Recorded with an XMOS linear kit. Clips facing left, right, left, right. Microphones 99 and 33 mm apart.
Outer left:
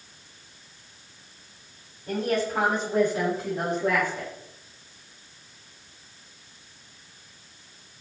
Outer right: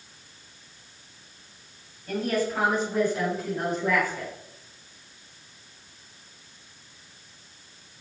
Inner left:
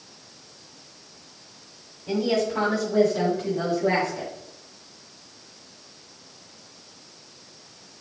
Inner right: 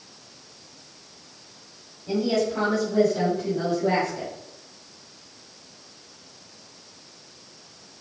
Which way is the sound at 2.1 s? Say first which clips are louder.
Outer left 1 dB, even; 30° left (ahead or behind).